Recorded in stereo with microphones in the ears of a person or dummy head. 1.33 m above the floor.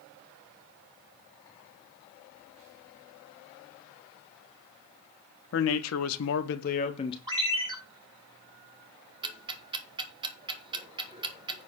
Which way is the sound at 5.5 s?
65° left (ahead or behind).